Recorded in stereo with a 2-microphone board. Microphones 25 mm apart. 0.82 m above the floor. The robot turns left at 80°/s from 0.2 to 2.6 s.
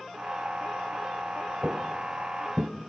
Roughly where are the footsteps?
Right.